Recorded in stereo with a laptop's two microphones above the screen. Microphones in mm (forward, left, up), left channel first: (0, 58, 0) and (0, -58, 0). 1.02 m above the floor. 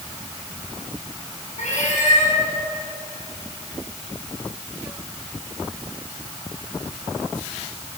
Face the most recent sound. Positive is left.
turn(degrees=80)